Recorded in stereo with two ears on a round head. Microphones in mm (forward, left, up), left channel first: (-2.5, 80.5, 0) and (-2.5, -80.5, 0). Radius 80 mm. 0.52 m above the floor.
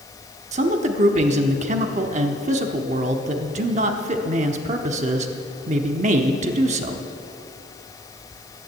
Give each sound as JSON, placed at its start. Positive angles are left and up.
{"t": 0.5, "sound": "a man speaking", "side_deg": -40, "distance_m": 0.9}